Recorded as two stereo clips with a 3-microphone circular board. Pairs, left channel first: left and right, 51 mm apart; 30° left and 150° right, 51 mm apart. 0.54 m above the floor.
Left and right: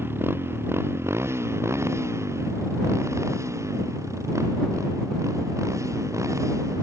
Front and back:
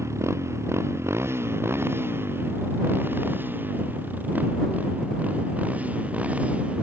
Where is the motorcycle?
130° right; by 6.8 s 85° right.